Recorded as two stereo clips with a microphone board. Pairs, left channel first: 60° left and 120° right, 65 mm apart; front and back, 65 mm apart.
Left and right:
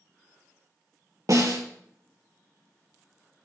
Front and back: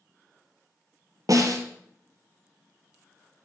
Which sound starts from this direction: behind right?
A snare drum, at 1.3 s.